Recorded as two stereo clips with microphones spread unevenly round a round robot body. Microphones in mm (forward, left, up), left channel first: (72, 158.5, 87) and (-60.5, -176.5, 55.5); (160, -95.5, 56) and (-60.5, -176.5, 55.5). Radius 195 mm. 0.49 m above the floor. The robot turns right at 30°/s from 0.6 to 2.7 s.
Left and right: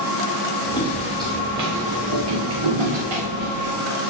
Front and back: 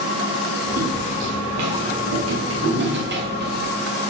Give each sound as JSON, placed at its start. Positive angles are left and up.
{"t": 0.8, "sound": "footsteps", "azimuth_deg": 145, "distance_m": 2.5}